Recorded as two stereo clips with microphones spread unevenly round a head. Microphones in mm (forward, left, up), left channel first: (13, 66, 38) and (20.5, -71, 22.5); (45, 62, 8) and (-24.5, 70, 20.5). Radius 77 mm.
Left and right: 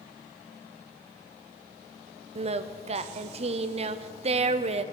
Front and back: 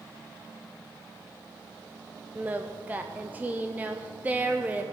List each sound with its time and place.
2.4 s singing: 110° right, 0.5 m